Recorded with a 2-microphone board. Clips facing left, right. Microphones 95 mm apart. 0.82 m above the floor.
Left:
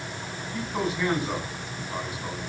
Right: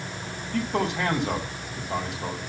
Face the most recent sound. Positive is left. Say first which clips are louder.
# right 3 dB
turn(degrees=-70)  # may be behind; listen again after turning